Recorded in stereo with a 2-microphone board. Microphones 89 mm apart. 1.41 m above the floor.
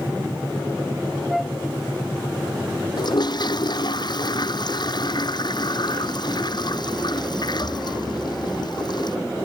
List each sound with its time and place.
1.3 s a flute: centre (ahead or behind)
3.0 s a toilet flushing: 55° left (ahead or behind)